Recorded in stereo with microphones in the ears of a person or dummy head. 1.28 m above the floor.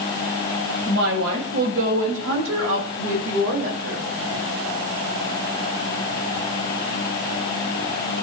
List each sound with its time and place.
0.9 s a woman speaking: 70° right (ahead or behind), 7 m; by 4.0 s 85° right, 4.5 m